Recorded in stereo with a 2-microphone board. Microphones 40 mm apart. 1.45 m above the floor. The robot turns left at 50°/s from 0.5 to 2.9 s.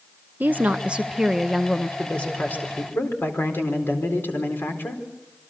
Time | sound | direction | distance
0.4 | a woman speaking | 130° right | 0.9 m
2.0 | a man speaking | 155° left | 4.5 m